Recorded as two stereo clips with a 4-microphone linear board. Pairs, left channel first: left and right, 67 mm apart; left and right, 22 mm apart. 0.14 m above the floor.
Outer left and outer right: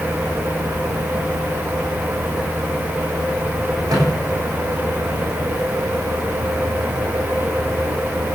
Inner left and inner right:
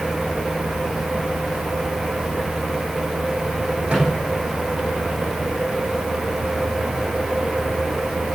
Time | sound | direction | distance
3.9 | a microwave | 65° right (ahead or behind) | 6 m